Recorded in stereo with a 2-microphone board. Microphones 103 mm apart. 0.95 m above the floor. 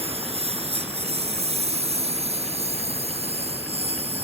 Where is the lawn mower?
75° right (ahead or behind).